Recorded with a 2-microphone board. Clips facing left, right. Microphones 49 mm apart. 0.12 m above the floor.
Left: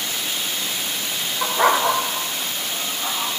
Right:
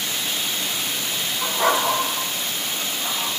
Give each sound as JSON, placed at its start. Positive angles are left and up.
{"t": 1.4, "sound": "a dog barking", "side_deg": 45, "distance_m": 3.0}